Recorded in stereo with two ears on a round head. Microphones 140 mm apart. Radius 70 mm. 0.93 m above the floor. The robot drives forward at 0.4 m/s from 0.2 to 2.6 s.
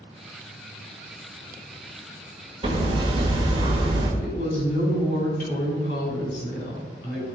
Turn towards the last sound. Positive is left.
turn(degrees=55)  # may be behind; listen again after turning